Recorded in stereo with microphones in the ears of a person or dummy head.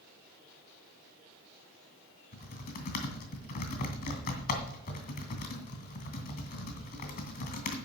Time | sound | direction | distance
2.3 | typing on a keyboard | 50° left (ahead or behind) | 2.5 m